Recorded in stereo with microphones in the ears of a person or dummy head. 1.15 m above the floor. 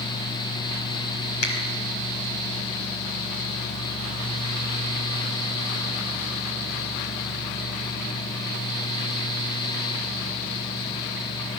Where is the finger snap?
75° left (ahead or behind), 5 m.